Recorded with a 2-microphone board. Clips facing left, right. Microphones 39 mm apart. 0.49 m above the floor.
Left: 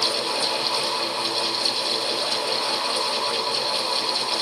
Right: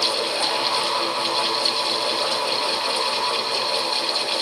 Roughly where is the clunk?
No clunk in this recording.